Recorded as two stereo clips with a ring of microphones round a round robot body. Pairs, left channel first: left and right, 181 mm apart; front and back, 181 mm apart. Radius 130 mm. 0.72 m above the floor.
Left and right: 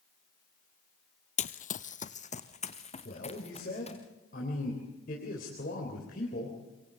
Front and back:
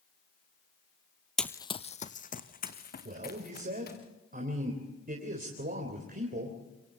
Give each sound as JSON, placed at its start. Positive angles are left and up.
{"t": 1.4, "sound": "running footsteps", "azimuth_deg": 85, "distance_m": 0.8}
{"t": 3.0, "sound": "a man speaking", "azimuth_deg": 145, "distance_m": 3.5}